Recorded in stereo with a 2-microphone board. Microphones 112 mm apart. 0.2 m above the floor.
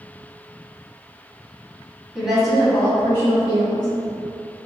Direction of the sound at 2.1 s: 5° right (ahead or behind).